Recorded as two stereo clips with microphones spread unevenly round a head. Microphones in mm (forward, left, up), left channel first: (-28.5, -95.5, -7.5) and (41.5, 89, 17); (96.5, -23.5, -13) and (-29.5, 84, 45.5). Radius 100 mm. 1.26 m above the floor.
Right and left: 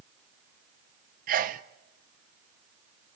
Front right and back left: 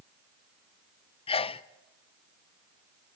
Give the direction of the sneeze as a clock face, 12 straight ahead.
11 o'clock.